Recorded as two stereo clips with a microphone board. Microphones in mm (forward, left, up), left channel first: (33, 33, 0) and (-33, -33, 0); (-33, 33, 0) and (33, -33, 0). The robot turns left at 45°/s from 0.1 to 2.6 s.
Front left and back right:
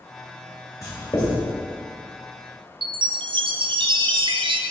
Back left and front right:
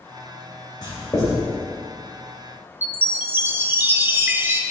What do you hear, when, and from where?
0.8 s writing: 100° left, 2.5 m; by 1.4 s 75° left, 2.5 m
2.8 s a chime: 110° right, 0.5 m